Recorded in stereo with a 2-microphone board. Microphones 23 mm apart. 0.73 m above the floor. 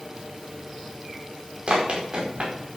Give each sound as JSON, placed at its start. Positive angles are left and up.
{"t": 1.7, "sound": "running footsteps", "side_deg": -55, "distance_m": 4.5}